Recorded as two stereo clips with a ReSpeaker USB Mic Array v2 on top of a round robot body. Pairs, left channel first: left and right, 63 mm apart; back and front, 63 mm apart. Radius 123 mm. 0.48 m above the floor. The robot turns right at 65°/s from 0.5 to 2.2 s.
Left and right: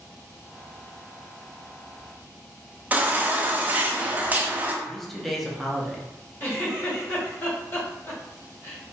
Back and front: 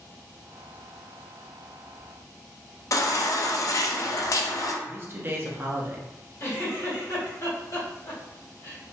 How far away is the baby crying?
About 0.5 m.